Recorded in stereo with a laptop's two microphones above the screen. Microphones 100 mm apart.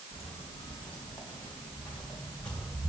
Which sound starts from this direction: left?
Footsteps, at 0.1 s.